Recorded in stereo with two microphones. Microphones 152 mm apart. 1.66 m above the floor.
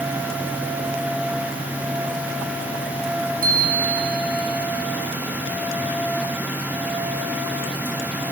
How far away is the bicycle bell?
About 5 m.